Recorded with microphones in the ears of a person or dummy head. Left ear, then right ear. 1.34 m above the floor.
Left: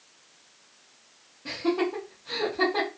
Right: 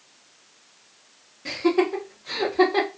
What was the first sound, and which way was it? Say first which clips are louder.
Laughter: right 5 dB; 35° right (ahead or behind).